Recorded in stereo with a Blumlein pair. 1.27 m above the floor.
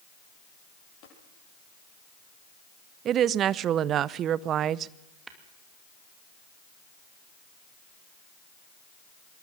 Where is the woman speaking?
30° right, 0.6 m.